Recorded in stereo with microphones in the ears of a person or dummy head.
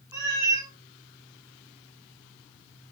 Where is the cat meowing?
15° right (ahead or behind), 0.7 m.